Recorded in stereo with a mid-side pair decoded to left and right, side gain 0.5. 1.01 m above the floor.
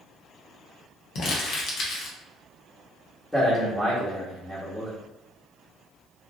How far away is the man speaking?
About 1.1 m.